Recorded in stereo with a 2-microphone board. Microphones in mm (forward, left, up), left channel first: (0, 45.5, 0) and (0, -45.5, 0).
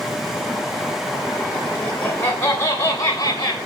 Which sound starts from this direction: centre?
Laughter, at 1.8 s.